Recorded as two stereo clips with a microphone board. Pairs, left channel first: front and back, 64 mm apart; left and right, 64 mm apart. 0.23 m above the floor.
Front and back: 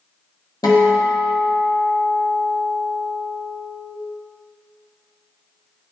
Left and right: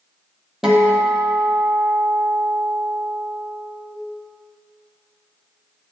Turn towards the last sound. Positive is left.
turn(degrees=-10)